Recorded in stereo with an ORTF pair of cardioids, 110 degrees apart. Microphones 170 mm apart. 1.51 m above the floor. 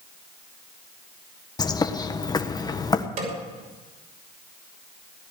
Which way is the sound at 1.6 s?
25° left.